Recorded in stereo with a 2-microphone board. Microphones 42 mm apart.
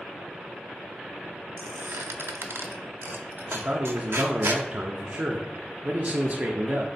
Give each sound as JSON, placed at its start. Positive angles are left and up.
{"t": 1.6, "sound": "a squeak", "side_deg": -60, "distance_m": 0.5}
{"t": 3.5, "sound": "a man speaking", "side_deg": -35, "distance_m": 0.5}